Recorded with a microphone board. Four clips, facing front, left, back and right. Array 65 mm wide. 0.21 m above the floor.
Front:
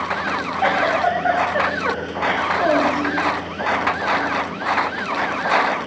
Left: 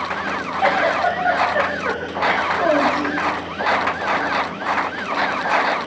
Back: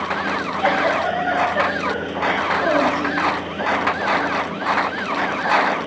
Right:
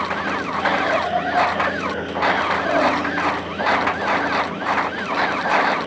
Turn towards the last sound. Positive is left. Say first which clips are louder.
# left 3 dB, front 1 dB
turn(degrees=40)